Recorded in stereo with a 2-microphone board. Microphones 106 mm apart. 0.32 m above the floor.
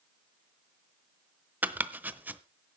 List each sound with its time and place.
1.6 s chopping: 15° right (ahead or behind), 0.7 m